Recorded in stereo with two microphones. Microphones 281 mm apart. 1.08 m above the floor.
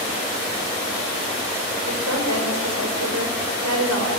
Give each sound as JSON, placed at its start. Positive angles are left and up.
{"t": 1.9, "sound": "a woman speaking", "side_deg": -80, "distance_m": 5.5}